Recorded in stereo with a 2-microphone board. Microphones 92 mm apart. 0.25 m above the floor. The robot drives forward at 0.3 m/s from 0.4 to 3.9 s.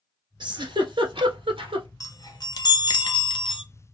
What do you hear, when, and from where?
0.4 s a giggle: 55° right (ahead or behind), 1.2 m; by 1.9 s 75° right (ahead or behind), 1.0 m
2.0 s a chime: 40° left (ahead or behind), 0.8 m; by 3.6 s 65° left (ahead or behind), 0.6 m